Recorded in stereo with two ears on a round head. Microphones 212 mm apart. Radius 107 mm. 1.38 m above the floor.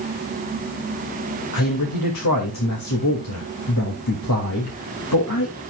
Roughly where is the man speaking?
Left.